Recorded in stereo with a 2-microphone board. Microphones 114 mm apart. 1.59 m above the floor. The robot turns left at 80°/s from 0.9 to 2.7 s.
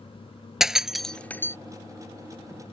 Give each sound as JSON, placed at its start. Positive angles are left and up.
{"t": 0.6, "sound": "breaking glass", "side_deg": -5}